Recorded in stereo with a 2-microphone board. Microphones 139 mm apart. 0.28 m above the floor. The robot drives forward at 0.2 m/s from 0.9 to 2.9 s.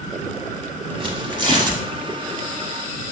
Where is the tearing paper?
35° right (ahead or behind), 0.7 m; by 1.8 s 30° right (ahead or behind), 0.8 m.